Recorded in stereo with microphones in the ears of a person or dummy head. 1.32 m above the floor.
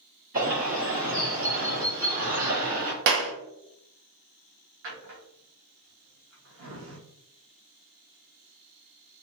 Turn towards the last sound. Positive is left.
turn(degrees=-55)  # may be behind; listen again after turning